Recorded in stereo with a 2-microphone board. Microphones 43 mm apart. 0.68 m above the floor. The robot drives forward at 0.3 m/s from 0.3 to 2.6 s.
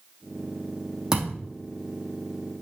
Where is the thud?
15° right (ahead or behind), 3.5 m.